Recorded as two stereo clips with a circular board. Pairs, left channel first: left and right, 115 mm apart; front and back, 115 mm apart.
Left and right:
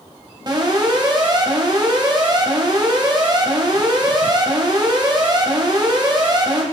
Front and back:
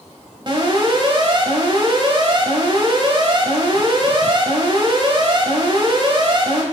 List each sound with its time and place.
0.5 s an alarm: 140° right, 2.0 m